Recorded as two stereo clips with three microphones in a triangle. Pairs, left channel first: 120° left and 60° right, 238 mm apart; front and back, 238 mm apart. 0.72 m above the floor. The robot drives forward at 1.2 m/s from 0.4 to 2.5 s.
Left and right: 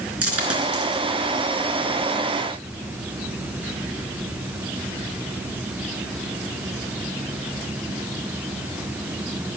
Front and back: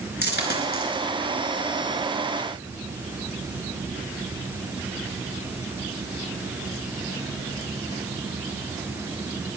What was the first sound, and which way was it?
A dropped coin, 45° right.